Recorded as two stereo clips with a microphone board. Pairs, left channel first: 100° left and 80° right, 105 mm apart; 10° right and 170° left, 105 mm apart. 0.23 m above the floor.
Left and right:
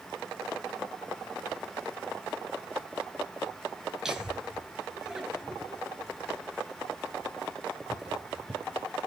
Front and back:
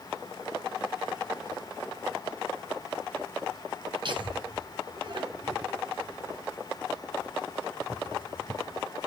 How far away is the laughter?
About 3.5 m.